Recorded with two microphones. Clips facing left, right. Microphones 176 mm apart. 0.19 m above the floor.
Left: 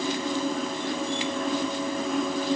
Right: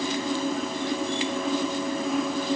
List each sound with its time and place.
Only background noise.